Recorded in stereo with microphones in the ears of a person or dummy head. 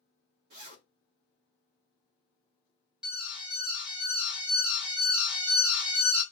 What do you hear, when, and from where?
0.5 s a zipper: 60° right (ahead or behind), 0.9 m
3.0 s an alarm: 5° right (ahead or behind), 1.0 m